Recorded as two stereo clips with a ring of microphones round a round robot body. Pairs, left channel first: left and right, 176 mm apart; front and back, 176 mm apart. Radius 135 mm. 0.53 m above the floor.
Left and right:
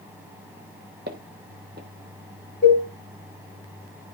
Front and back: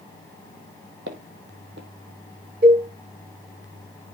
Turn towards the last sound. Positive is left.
turn(degrees=150)